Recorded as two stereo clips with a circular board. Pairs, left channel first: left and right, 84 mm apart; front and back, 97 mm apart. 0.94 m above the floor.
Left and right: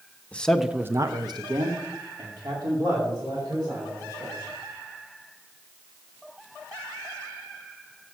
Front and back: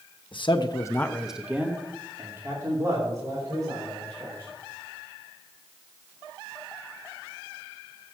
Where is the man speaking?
15° left, 1.0 m; by 4.5 s 130° right, 5 m.